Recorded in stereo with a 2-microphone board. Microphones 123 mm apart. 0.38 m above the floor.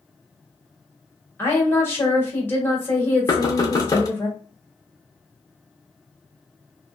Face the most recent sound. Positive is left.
turn(degrees=30)  # may be behind; listen again after turning